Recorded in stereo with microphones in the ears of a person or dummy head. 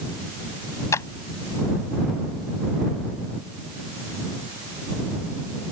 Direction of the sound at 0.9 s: 15° left (ahead or behind).